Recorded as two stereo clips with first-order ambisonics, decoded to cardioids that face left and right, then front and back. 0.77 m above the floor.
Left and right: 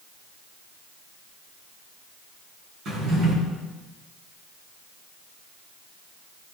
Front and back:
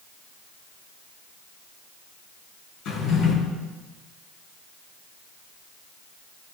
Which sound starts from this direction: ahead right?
A drawer, at 2.9 s.